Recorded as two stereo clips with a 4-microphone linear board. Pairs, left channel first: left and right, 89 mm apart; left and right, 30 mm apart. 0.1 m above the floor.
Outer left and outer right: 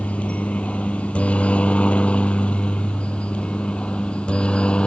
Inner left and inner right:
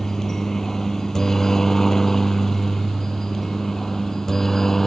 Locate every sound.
0.0 s a helicopter: 15° left (ahead or behind); by 4.9 s 10° left (ahead or behind)